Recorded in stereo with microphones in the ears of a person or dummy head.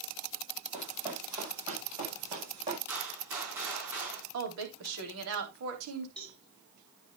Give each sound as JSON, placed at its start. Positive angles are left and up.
{"t": 0.7, "sound": "running footsteps", "side_deg": -10, "distance_m": 2.5}
{"t": 2.9, "sound": "a gunshot", "side_deg": -15, "distance_m": 5.0}
{"t": 4.3, "sound": "a woman speaking", "side_deg": -80, "distance_m": 3.5}
{"t": 6.2, "sound": "a cowbell", "side_deg": 5, "distance_m": 3.5}